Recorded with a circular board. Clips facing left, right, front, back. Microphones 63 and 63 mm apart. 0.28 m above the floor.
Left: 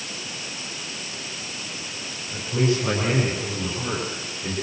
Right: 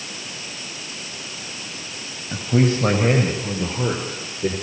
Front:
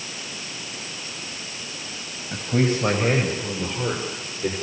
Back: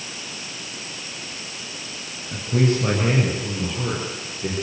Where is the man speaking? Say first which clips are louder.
Right 4 dB, back 1 dB; 70° right, 6.5 m; by 4.5 s 85° right, 8.5 m.